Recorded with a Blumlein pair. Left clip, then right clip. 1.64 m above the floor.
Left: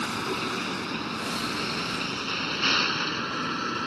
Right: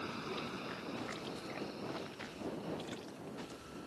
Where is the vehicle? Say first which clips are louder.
Left 13 dB; 35° left; by 3.9 s 50° left.